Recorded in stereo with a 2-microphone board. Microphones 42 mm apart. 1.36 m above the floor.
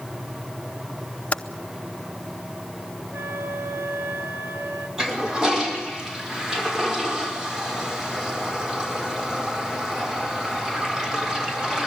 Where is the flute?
65° right (ahead or behind), 4 m.